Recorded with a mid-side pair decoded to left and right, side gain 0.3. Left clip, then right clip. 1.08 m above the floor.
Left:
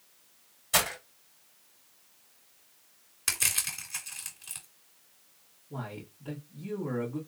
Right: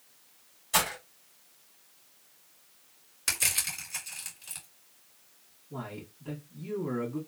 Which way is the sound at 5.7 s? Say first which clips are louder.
Even; 45° left.